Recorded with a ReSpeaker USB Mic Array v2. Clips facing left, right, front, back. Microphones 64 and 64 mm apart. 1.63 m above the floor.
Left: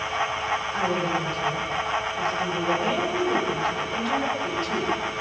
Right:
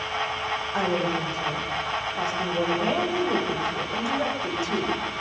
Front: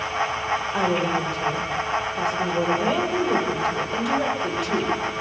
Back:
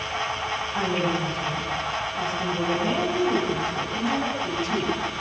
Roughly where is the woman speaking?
Ahead.